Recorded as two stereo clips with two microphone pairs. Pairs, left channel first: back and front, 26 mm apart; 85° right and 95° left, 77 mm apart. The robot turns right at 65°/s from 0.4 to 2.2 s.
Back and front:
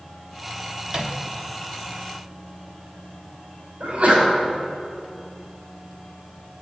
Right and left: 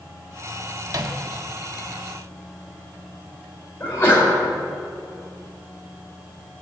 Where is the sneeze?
20° right, 5.5 m.